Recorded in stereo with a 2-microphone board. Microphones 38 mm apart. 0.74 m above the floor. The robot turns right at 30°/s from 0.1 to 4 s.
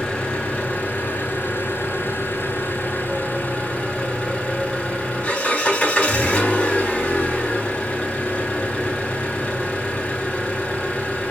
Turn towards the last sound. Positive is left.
turn(degrees=140)